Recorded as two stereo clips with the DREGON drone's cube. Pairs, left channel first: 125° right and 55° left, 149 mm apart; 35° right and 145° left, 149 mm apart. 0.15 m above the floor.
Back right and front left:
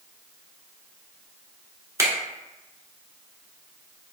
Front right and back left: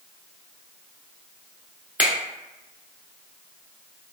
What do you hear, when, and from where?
2.0 s a finger snap: 80° left, 0.9 m